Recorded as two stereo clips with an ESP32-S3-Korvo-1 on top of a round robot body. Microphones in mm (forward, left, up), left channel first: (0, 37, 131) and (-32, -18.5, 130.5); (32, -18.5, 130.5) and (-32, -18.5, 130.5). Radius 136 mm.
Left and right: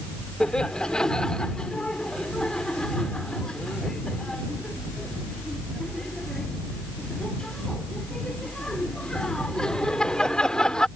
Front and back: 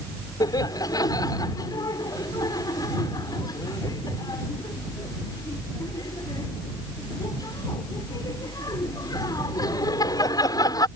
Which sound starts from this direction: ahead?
Laughter, at 0.4 s.